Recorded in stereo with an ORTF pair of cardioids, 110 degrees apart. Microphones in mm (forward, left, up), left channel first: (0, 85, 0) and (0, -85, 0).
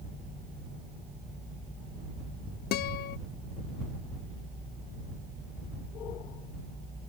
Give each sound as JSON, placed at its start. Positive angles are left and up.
{"t": 2.7, "sound": "a guitar", "azimuth_deg": 65}